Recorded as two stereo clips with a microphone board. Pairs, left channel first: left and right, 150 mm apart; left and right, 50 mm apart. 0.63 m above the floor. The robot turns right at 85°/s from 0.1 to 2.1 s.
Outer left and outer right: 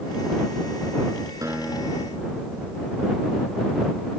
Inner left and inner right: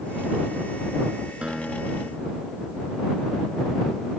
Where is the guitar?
20° right; by 3.0 s 35° left.